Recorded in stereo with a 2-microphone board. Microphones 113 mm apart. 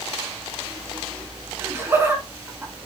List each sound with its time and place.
1.6 s laughter: 20° right (ahead or behind), 1.4 m